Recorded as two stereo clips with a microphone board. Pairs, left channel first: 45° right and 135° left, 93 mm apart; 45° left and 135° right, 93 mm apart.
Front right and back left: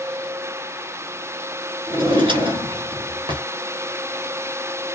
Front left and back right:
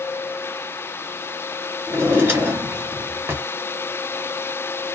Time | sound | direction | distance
1.9 | a drawer | 160° left | 1.0 m